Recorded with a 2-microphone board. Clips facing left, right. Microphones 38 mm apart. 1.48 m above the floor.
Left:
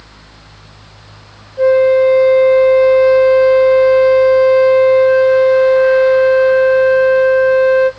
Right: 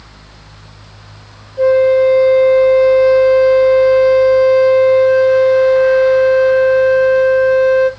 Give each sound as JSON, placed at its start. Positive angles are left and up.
{"t": 1.6, "sound": "a flute", "side_deg": 5, "distance_m": 0.6}